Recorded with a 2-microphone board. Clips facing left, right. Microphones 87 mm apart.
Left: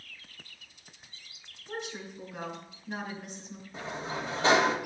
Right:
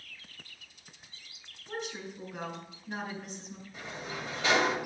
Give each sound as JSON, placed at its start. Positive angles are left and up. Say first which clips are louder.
{"t": 1.7, "sound": "a woman speaking", "louder": "even", "side_deg": -5, "distance_m": 3.5}
{"t": 3.7, "sound": "a sliding door", "louder": "left 5 dB", "side_deg": 35, "distance_m": 1.5}